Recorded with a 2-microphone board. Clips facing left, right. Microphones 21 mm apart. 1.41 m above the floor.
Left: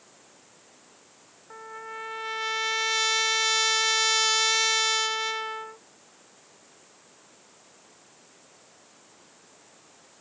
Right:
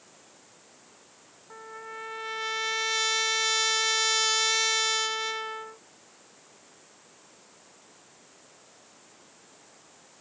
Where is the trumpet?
5° left (ahead or behind).